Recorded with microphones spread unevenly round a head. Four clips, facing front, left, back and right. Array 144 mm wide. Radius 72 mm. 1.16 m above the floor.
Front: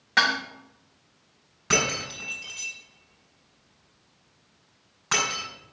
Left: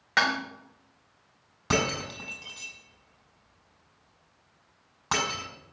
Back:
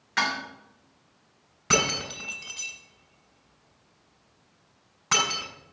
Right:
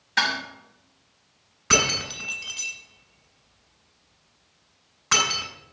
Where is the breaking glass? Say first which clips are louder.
Right 2 dB, even; 105° left, 6.5 m.